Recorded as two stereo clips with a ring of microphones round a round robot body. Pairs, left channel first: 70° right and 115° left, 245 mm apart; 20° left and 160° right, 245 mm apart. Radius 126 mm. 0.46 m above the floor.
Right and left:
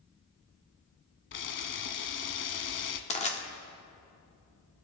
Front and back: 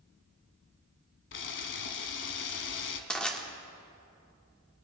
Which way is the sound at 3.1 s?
60° right.